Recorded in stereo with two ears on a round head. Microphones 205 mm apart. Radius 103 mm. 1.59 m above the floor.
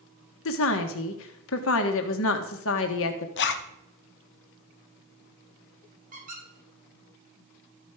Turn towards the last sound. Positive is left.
turn(degrees=-35)  # may be behind; listen again after turning